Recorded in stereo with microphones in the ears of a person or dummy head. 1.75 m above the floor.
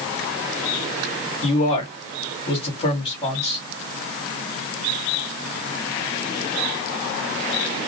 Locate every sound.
1.4 s a man speaking: 30° left (ahead or behind), 1.6 m